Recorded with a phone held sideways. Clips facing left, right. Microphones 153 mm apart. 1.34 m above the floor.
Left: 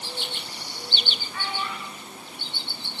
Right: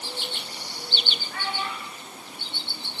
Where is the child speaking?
80° right, 7 m; by 2.9 s 75° right (ahead or behind), 8.5 m.